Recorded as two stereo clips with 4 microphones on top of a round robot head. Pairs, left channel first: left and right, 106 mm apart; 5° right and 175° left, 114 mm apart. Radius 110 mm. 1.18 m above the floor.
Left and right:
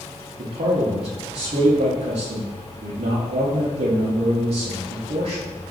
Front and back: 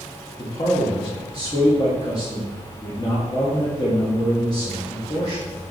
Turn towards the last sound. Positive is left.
turn(degrees=-65)